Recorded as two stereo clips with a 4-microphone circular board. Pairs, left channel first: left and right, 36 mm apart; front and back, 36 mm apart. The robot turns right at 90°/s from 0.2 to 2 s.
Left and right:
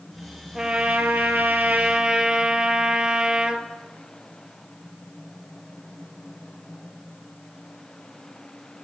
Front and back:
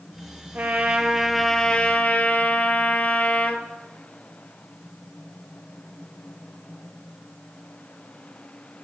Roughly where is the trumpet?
Behind.